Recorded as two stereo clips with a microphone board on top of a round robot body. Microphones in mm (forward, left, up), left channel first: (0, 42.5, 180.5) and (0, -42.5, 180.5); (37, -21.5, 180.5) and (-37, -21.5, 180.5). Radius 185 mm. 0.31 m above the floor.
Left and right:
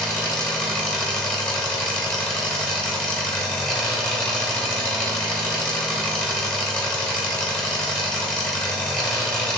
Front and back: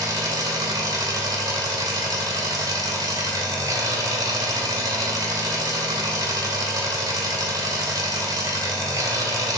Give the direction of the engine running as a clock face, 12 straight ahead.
6 o'clock.